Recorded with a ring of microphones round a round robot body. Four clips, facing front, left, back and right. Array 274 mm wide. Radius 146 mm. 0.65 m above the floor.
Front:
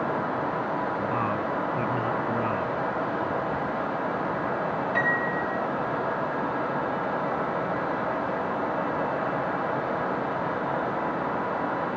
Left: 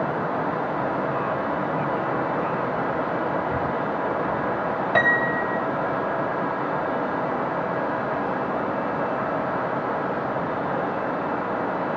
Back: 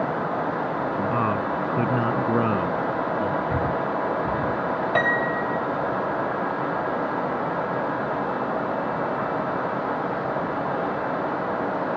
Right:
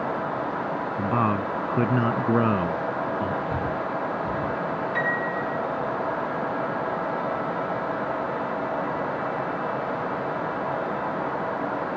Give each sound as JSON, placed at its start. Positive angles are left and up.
{"t": 1.0, "sound": "a man speaking", "azimuth_deg": -115}
{"t": 3.5, "sound": "breathing", "azimuth_deg": -165}
{"t": 5.0, "sound": "a piano", "azimuth_deg": 125}